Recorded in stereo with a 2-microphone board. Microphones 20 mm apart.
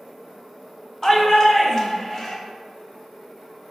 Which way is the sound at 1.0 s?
25° left (ahead or behind).